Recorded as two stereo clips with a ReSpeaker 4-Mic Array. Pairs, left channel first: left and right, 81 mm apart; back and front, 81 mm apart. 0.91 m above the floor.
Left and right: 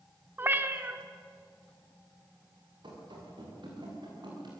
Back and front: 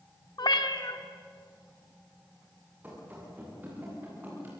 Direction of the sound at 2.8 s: 70° right.